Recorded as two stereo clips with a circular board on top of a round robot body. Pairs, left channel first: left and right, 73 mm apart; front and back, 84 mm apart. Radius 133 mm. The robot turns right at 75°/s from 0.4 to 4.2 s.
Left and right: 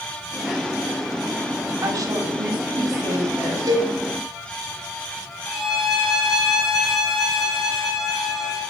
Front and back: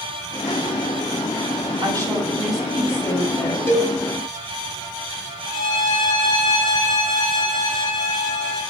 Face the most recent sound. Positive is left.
turn(degrees=-5)